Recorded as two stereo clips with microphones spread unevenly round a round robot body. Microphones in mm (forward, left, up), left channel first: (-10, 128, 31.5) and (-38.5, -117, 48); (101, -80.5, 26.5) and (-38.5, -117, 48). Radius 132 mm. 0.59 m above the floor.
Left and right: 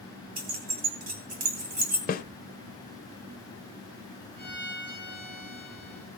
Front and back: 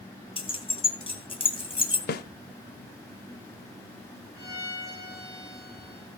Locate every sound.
0.4 s keys jangling: 40° right, 2.5 m
2.1 s a snare drum: 25° left, 0.9 m
4.4 s a violin: 95° right, 7.5 m